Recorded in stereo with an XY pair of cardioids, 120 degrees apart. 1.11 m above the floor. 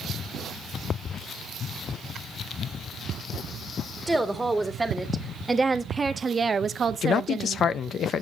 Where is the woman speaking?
5° right, 2 m; by 7.6 s 60° right, 0.6 m.